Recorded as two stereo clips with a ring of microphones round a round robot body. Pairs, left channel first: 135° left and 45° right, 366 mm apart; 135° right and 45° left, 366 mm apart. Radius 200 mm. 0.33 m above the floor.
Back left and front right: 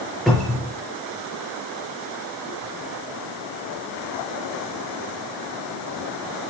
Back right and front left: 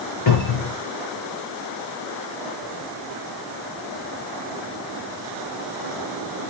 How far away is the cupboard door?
About 5 m.